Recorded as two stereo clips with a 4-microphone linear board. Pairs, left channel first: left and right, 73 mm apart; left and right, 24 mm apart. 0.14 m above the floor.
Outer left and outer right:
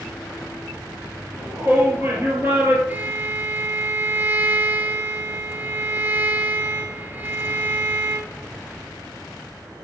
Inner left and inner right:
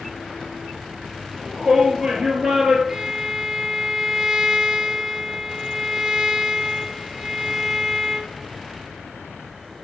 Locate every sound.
1.4 s a shout: 30° right (ahead or behind), 2.5 m
2.9 s a violin: 25° right (ahead or behind), 1.6 m